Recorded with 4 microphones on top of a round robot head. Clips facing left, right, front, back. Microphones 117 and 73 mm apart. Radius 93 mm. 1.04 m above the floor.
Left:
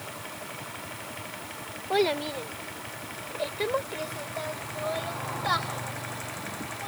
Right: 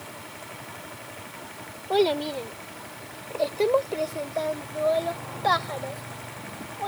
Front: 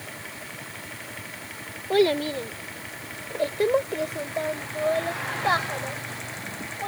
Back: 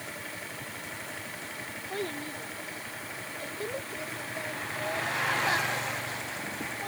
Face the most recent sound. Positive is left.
turn(degrees=-65)